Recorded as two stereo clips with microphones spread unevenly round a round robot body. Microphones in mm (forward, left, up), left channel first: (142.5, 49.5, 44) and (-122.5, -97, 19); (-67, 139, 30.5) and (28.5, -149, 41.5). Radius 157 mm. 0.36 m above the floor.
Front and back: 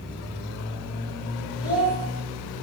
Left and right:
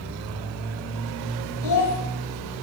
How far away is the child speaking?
About 1.3 m.